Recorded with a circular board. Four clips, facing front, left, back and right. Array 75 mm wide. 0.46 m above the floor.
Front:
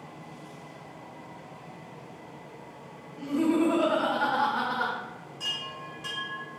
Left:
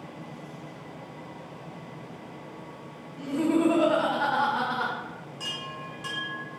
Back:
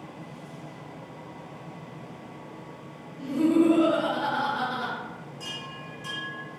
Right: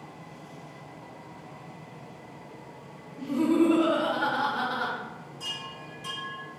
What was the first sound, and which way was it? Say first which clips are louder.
Laughter: right 1 dB, back 3 dB; 65° left.